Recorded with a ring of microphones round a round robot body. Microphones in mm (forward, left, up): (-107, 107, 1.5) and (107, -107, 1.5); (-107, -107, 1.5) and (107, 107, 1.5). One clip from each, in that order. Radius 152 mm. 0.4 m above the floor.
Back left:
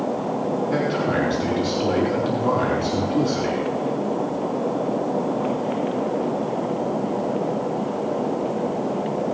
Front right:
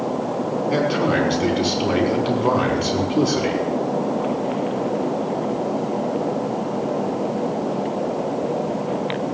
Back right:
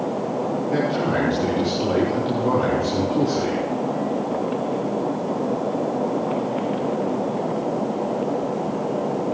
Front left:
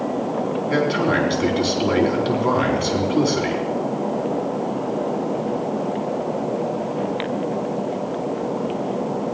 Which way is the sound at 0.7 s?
15° left.